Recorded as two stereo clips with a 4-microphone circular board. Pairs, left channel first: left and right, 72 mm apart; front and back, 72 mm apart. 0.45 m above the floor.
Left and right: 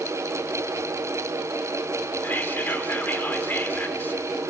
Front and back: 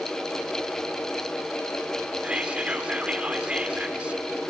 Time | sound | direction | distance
2.2 | whispering | 120° left | 1.1 m